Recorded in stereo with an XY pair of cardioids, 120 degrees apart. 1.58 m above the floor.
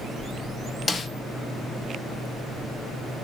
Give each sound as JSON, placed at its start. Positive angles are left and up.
{"t": 0.9, "sound": "a snare drum", "azimuth_deg": 25, "distance_m": 1.1}